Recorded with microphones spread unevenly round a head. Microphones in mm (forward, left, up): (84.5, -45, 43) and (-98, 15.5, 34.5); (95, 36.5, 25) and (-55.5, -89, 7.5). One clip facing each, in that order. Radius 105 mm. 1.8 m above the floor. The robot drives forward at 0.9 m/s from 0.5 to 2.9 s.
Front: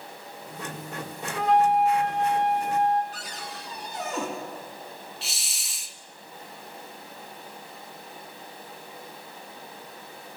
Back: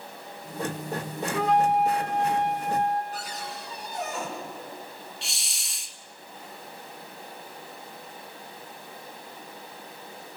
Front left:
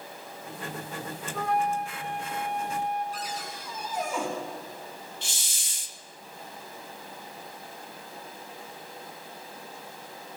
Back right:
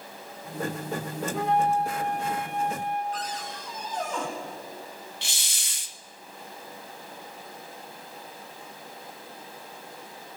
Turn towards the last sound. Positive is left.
turn(degrees=-105)